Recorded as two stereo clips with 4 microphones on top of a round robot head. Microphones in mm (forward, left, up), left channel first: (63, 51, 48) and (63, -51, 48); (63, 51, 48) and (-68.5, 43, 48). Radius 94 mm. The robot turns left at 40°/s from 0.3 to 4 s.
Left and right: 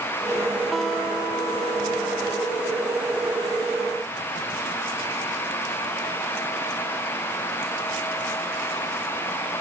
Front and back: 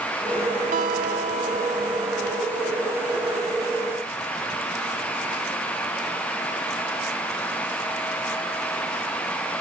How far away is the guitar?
About 1.4 m.